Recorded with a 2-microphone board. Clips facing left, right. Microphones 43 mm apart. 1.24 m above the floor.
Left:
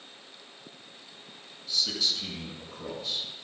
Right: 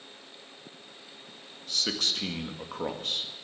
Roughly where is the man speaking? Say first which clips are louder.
Even; right.